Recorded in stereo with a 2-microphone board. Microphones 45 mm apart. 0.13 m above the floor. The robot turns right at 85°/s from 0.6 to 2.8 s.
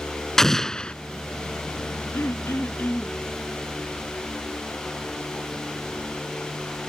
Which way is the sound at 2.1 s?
80° left.